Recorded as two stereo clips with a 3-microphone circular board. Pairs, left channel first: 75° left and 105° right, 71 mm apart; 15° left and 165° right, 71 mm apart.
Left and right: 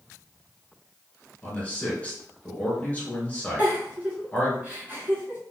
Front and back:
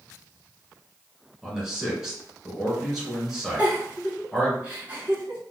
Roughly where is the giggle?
Behind right.